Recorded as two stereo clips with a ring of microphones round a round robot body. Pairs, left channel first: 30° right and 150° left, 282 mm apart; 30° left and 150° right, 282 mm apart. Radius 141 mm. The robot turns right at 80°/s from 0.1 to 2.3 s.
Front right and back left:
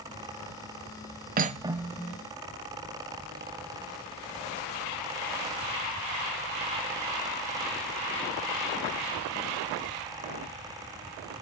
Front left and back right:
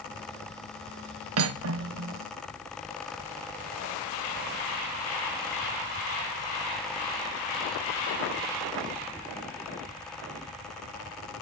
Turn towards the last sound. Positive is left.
turn(degrees=-85)